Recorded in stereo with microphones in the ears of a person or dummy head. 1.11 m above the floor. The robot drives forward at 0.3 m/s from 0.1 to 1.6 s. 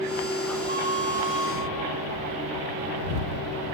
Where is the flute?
30° right (ahead or behind), 1.1 m; by 1.7 s 25° right (ahead or behind), 1.3 m.